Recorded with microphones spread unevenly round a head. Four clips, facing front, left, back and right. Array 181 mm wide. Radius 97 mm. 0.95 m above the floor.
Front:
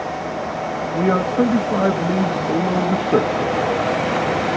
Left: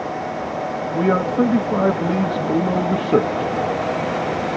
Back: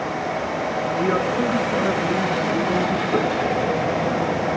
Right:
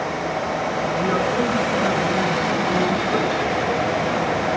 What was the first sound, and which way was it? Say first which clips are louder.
A man speaking: left 5 dB, front 5 dB; 45° left.